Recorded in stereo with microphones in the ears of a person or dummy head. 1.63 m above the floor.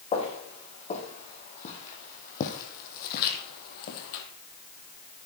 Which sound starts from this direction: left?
Footsteps, at 0.1 s.